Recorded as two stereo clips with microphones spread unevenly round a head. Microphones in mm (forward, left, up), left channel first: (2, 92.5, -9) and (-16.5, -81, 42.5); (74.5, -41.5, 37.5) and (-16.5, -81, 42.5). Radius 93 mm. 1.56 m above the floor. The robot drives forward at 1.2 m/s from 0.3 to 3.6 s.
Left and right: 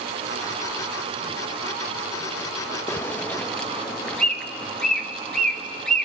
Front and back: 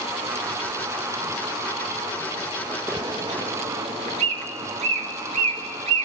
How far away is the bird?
About 0.8 m.